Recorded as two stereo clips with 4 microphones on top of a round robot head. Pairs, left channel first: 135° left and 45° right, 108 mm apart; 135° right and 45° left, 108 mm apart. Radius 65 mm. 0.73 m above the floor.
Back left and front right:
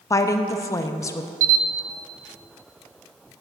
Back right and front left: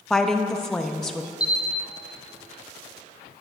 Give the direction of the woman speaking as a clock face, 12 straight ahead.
7 o'clock.